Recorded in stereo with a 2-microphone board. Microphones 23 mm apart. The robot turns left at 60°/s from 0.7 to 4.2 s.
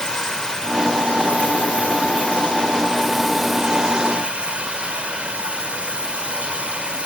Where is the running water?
160° left, 5.5 m; by 7.1 s 50° right, 5.5 m.